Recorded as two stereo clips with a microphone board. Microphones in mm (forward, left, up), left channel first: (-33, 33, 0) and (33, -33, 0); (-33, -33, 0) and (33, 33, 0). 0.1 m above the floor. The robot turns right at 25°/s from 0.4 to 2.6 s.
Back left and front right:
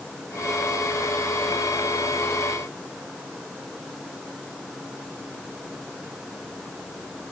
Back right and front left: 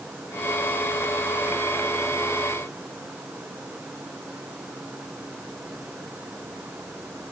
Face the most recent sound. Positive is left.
No sound to turn to.